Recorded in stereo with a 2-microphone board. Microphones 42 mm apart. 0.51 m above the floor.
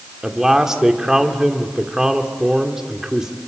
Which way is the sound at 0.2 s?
15° right (ahead or behind).